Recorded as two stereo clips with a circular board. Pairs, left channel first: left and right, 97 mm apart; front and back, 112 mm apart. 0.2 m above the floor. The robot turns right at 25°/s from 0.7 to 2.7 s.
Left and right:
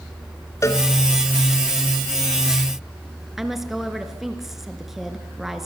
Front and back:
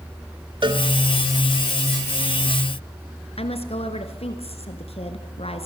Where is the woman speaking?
5° right, 2.5 m.